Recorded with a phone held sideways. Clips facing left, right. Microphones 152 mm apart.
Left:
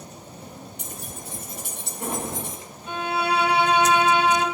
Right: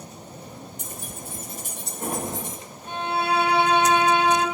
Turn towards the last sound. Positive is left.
turn(degrees=-50)  # may be behind; listen again after turning